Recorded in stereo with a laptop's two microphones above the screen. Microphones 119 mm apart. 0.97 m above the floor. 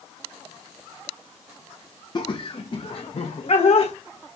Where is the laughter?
40° left (ahead or behind), 1.1 m; by 3.9 s 55° left (ahead or behind), 1.8 m.